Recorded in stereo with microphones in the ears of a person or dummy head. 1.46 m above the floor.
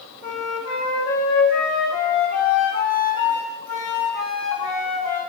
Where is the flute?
35° left (ahead or behind), 3 m.